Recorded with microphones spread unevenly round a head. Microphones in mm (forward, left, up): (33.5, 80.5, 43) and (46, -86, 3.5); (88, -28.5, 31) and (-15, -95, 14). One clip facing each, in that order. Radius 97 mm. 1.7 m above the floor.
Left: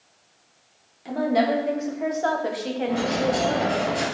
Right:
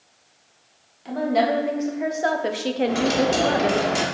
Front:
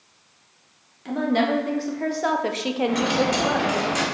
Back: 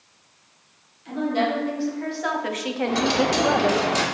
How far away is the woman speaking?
About 2.5 m.